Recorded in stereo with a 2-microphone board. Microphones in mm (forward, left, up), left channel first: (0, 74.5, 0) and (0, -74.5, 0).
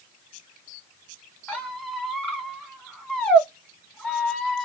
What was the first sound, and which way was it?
A squeak, 5° left (ahead or behind).